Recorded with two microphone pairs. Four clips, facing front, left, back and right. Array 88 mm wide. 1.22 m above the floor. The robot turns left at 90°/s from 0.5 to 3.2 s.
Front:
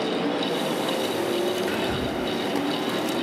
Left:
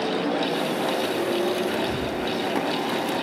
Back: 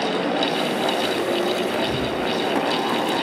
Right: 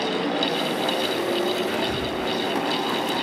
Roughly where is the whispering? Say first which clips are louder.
Even, back 3 dB; ahead.